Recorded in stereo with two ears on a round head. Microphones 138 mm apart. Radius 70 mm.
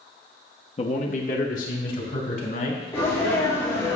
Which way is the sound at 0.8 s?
35° left (ahead or behind).